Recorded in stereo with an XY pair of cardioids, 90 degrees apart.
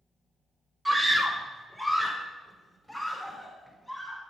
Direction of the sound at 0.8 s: 20° right.